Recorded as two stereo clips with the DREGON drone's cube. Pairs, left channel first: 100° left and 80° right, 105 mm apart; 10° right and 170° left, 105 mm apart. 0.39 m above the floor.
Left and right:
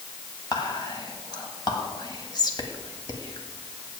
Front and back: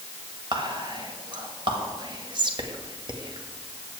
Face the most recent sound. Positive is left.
turn(degrees=140)